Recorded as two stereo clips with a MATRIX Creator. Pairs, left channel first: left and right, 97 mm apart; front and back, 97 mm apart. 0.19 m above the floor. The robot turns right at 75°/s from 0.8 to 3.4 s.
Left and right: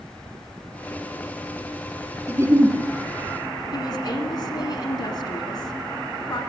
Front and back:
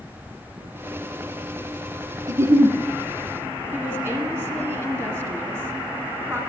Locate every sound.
2.3 s a giggle: 145° right, 0.7 m; by 2.8 s 110° right, 0.7 m
3.7 s a woman speaking: 125° left, 1.5 m